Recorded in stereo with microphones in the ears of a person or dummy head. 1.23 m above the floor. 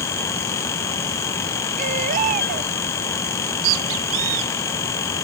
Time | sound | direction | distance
1.8 | a baby crying | 45° right (ahead or behind) | ?
3.3 | a bird | 85° right | ?